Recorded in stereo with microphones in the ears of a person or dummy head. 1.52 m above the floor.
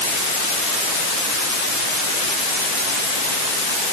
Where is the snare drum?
I don't hear a snare drum.